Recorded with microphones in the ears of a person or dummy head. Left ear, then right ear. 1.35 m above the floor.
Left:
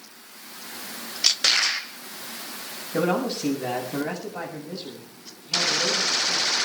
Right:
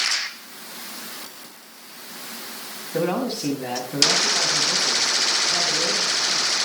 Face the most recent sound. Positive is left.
turn(degrees=0)  # may be behind; listen again after turning